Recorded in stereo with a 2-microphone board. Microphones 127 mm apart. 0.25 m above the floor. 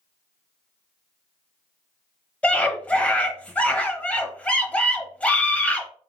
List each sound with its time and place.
2.4 s a scream: 10° left (ahead or behind), 0.9 m